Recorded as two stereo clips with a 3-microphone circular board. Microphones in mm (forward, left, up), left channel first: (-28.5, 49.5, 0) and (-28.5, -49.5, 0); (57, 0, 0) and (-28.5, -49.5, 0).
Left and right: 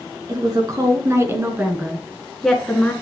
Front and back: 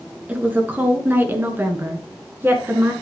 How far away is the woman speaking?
About 1.6 m.